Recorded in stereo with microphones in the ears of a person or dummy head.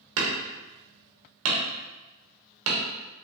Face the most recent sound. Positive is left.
turn(degrees=-80)